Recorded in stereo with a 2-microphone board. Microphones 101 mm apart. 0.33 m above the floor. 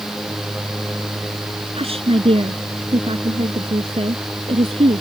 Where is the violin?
I don't hear a violin.